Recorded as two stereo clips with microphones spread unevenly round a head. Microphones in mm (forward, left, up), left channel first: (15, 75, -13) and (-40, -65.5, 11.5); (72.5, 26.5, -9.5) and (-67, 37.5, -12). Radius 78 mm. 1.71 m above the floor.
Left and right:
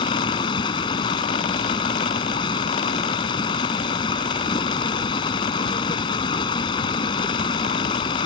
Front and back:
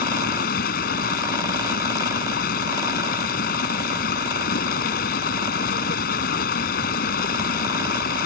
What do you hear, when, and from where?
0.0 s running water: 5° left